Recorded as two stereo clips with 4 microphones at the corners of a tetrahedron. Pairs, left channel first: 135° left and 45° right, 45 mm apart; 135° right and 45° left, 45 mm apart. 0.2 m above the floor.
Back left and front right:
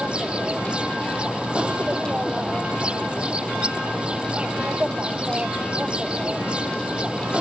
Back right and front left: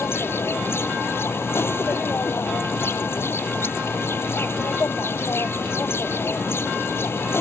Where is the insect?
110° right.